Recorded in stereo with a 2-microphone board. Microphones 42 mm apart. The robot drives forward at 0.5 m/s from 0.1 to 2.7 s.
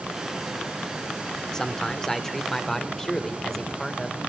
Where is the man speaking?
10° left (ahead or behind), 2 m.